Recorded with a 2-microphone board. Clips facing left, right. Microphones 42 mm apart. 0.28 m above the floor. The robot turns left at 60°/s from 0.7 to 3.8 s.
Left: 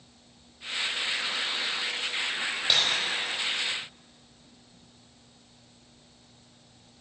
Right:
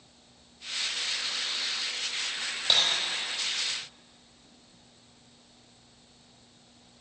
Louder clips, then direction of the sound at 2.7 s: Even; 5° left (ahead or behind).